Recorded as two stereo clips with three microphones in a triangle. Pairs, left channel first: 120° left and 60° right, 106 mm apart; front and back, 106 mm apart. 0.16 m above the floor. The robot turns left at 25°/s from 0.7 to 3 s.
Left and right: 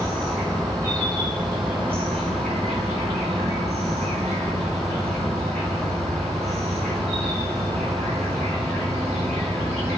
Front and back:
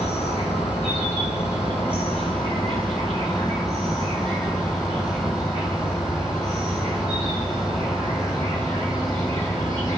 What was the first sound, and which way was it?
An insect, 5° left.